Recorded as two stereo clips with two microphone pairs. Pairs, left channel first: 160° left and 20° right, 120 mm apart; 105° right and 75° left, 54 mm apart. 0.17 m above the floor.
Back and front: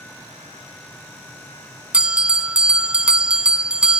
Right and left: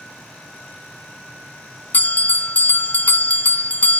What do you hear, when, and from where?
1.9 s a bell: 90° right, 0.6 m